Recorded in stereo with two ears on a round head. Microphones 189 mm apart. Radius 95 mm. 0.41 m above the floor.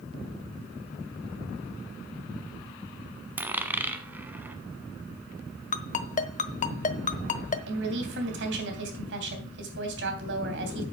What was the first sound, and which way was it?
A dropped coin, 10° right (ahead or behind).